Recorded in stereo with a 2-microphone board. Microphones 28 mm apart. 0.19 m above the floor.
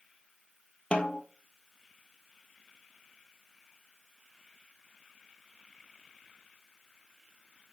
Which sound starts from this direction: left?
A snare drum, at 0.9 s.